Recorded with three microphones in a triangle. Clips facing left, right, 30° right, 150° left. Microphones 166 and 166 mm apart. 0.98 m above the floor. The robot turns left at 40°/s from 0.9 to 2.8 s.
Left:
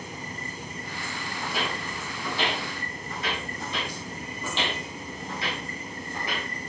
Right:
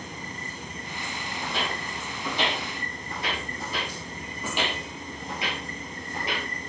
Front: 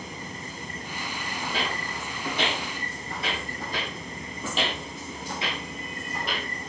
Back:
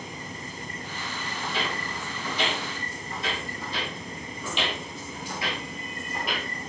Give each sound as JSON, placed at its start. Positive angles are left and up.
{"t": 1.4, "sound": "footsteps", "azimuth_deg": 15, "distance_m": 1.9}
{"t": 3.6, "sound": "footsteps", "azimuth_deg": -5, "distance_m": 1.8}